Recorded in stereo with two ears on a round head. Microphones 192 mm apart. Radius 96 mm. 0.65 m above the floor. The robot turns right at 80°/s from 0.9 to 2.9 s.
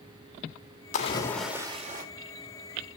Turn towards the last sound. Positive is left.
turn(degrees=-60)